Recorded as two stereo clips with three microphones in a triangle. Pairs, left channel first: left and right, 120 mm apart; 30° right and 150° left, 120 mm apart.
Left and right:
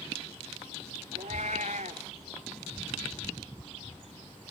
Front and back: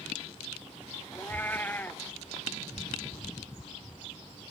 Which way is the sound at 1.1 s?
105° right.